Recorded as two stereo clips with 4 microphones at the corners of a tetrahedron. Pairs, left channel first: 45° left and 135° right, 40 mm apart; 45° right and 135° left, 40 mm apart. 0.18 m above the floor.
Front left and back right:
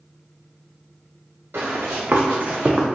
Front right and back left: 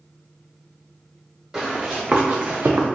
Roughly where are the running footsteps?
Behind right.